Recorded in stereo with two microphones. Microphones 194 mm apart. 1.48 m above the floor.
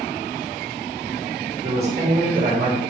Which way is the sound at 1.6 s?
60° right (ahead or behind).